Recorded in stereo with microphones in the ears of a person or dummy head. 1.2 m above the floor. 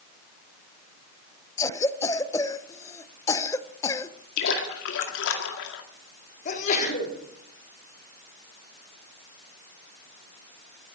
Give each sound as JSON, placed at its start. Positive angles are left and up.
{"t": 1.6, "sound": "a cough", "side_deg": 20, "distance_m": 0.9}
{"t": 4.4, "sound": "a splash", "side_deg": 70, "distance_m": 2.0}
{"t": 6.5, "sound": "a sneeze", "side_deg": 40, "distance_m": 3.5}